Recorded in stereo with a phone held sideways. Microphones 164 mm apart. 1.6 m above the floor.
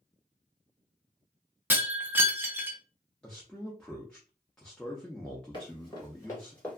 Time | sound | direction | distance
1.7 | breaking glass | 15° right (ahead or behind) | 0.7 m
3.2 | a man speaking | 5° left (ahead or behind) | 0.5 m
5.5 | running footsteps | 30° left (ahead or behind) | 1.8 m